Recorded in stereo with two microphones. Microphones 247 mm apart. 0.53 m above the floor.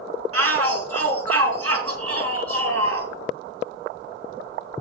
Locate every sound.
0.3 s a shout: 65° right (ahead or behind), 5 m